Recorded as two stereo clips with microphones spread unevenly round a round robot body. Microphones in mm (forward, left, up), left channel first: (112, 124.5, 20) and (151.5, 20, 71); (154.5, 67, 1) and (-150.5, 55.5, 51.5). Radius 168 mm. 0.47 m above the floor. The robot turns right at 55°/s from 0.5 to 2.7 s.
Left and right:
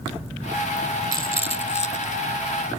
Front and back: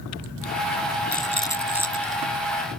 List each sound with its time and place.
1.1 s a rattle: 60° left; by 2.2 s 125° left